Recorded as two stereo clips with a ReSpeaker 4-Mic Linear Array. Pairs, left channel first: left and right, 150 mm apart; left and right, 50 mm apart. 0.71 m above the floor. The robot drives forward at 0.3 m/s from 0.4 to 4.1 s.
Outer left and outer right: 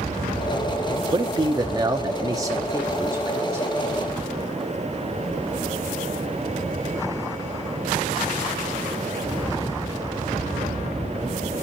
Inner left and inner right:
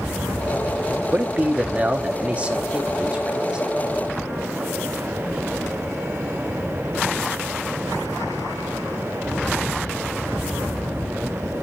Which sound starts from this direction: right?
A man speaking, at 1.1 s.